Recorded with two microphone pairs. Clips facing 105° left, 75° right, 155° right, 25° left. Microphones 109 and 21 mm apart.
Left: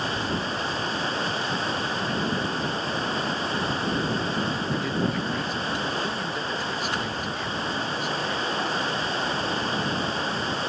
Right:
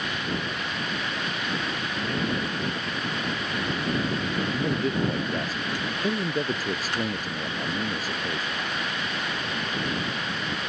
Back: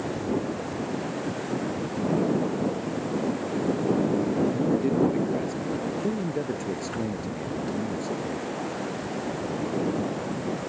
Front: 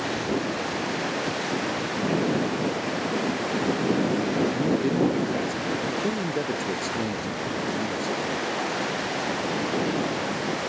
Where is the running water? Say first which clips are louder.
Left 3 dB, front 2 dB; 50° left.